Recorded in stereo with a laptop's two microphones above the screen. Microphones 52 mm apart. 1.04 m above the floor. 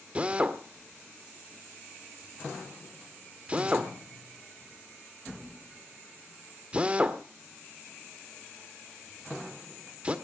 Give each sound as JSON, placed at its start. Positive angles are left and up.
{"t": 0.1, "sound": "a drill", "side_deg": -25, "distance_m": 1.3}